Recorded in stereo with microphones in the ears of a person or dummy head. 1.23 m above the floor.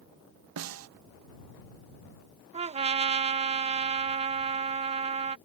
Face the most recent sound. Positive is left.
turn(degrees=-30)  # may be behind; listen again after turning